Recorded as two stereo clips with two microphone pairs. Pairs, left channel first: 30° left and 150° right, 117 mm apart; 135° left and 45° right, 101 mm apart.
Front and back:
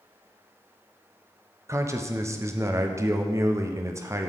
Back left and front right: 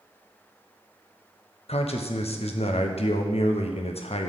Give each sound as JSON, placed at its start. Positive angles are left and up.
{"t": 1.7, "sound": "a man speaking", "azimuth_deg": 140, "distance_m": 0.8}